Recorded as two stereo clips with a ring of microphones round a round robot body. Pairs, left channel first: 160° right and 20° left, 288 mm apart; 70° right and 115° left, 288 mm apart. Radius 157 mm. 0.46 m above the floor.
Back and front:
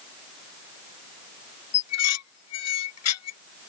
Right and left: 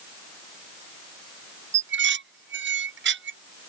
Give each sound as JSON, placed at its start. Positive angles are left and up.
{"t": 1.7, "sound": "dishes clattering", "azimuth_deg": 165}